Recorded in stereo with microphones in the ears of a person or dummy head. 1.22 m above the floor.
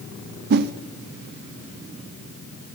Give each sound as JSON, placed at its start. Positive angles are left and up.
{"t": 0.5, "sound": "a whoosh", "side_deg": -55, "distance_m": 0.7}